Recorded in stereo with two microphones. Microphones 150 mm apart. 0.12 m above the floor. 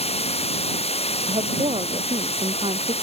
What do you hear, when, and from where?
0.0 s running water: 40° left (ahead or behind)
1.3 s a woman speaking: 40° right (ahead or behind)